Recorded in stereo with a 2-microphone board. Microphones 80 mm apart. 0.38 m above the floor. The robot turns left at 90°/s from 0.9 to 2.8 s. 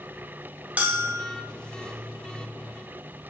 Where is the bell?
20° right, 1.6 m; by 1.4 s 60° right, 1.6 m.